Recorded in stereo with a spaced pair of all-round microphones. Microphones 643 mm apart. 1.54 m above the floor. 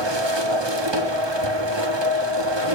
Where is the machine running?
40° right (ahead or behind), 1.4 m.